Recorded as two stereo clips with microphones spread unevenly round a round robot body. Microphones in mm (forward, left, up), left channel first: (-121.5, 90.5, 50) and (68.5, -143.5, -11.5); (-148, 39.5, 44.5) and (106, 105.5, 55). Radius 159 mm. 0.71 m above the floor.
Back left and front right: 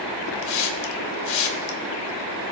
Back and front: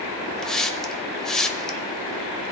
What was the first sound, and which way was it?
A hiss, 105° left.